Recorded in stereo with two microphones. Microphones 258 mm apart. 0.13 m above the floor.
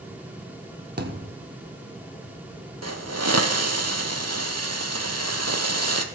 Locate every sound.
1.0 s a thud: 40° right (ahead or behind), 1.3 m
2.8 s a hiss: 75° right (ahead or behind), 1.1 m